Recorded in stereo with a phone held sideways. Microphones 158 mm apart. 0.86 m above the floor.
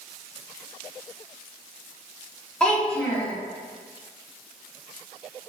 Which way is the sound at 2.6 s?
5° left (ahead or behind).